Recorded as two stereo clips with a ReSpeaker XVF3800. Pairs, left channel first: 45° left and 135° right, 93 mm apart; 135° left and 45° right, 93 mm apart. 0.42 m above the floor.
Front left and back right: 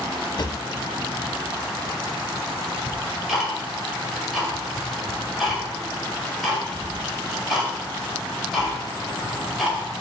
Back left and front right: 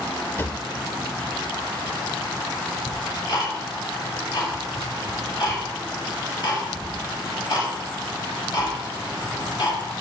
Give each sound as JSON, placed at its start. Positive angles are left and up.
{"t": 0.4, "sound": "a drawer", "azimuth_deg": 70, "distance_m": 0.7}
{"t": 2.9, "sound": "ticking", "azimuth_deg": 135, "distance_m": 2.0}